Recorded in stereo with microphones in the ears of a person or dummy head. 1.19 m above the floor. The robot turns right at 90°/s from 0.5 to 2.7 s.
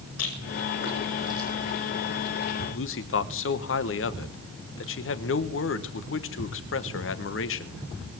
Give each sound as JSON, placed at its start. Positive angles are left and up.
{"t": 0.2, "sound": "a rattle", "side_deg": 85, "distance_m": 6.5}
{"t": 2.7, "sound": "a man speaking", "side_deg": 65, "distance_m": 1.2}